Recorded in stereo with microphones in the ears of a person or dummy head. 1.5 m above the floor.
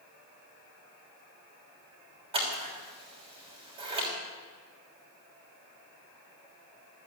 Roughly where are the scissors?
Right.